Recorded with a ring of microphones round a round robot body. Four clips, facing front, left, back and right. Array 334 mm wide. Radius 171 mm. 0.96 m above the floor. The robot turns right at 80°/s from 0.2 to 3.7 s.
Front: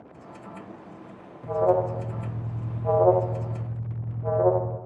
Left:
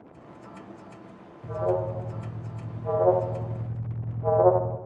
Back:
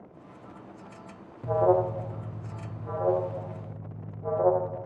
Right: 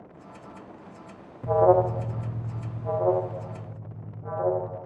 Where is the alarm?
105° right, 0.5 m; by 4.8 s 75° left, 0.5 m.